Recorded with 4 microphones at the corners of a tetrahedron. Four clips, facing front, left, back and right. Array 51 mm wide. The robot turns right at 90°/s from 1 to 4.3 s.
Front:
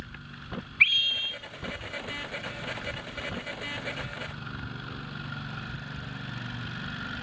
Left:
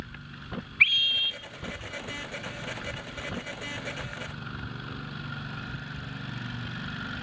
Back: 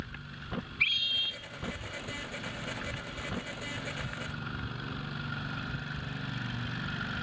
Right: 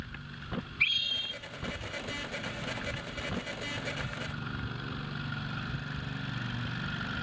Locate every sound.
0.8 s a scream: 45° left, 3 m; by 1.4 s 80° left, 3 m